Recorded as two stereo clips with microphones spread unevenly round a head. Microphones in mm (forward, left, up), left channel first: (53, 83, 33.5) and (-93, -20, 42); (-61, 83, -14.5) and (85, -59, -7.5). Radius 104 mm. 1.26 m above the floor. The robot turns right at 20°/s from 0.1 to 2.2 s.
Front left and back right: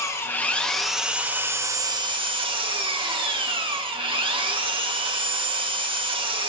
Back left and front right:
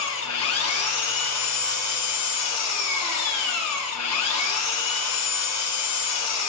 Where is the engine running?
110° left, 1.5 m; by 6.5 s 150° left, 1.5 m.